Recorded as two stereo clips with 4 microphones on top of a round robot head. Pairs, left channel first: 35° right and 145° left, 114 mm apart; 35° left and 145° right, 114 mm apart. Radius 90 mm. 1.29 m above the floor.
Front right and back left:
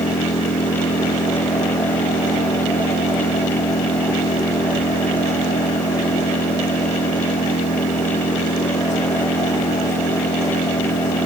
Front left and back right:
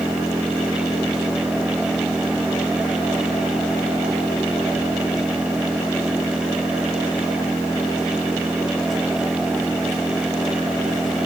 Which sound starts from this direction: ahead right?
An engine running, at 0.0 s.